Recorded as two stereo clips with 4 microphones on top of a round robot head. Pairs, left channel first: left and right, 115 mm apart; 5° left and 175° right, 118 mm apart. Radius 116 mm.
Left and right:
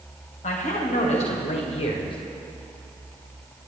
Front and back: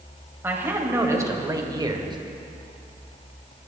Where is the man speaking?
110° left, 3 m; by 2.2 s 135° left, 1.8 m.